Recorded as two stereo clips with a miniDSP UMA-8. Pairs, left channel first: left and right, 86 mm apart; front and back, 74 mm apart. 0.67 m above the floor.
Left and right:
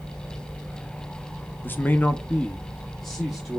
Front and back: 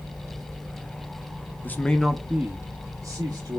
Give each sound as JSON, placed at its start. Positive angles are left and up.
{"t": 1.6, "sound": "a man speaking", "azimuth_deg": 40, "distance_m": 0.5}